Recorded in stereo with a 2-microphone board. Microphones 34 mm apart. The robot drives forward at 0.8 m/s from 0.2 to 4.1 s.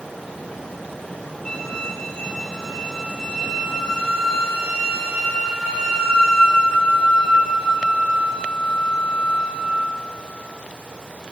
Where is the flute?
20° left (ahead or behind), 1.4 m; by 9.7 s 10° left (ahead or behind), 3.5 m.